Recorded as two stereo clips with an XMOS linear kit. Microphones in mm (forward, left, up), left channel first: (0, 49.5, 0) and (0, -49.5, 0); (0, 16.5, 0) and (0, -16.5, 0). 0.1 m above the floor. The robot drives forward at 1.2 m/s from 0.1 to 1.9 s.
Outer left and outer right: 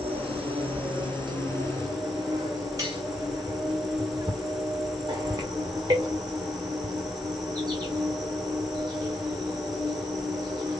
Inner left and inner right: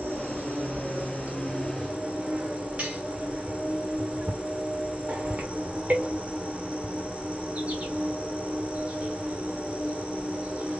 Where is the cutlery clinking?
35° right (ahead or behind), 5.5 m.